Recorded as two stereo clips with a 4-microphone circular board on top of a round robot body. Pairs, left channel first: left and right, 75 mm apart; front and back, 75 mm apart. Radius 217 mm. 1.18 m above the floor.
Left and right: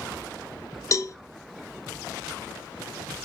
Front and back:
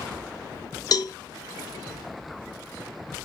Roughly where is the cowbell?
Ahead left.